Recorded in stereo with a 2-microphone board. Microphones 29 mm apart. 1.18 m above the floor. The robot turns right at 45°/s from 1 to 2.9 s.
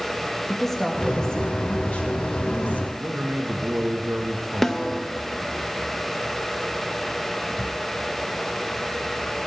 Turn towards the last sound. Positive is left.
turn(degrees=10)  # may be behind; listen again after turning